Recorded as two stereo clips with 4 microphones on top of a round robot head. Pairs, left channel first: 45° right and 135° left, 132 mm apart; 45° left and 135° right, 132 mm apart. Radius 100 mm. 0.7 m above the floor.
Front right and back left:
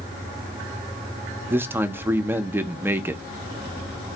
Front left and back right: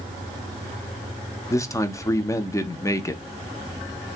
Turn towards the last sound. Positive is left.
turn(degrees=75)